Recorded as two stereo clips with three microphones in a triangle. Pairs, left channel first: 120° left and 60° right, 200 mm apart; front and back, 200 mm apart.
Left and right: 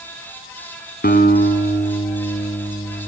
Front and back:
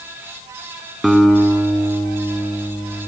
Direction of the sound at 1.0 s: 90° left.